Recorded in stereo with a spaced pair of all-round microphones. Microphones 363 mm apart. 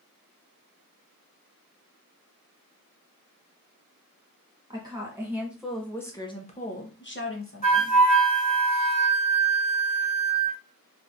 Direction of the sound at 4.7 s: 10° right (ahead or behind).